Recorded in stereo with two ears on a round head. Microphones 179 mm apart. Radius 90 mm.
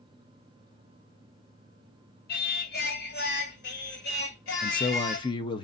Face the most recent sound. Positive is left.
turn(degrees=25)  # may be behind; listen again after turning